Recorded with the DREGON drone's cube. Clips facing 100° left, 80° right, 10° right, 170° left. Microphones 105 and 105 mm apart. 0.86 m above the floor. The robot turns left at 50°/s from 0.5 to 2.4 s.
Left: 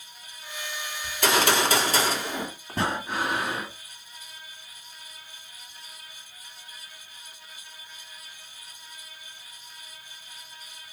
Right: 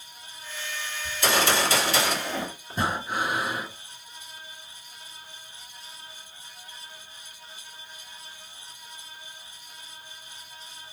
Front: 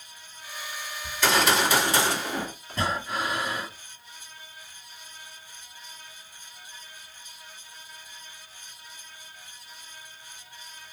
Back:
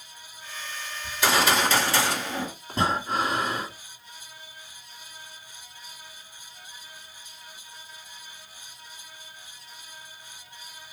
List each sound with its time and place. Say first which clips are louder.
1.0 s a gunshot: left 1 dB, even; 100° left, 2.0 m; by 2.5 s 35° left, 2.0 m
2.7 s breathing: even, back 4 dB; 110° left, 1.9 m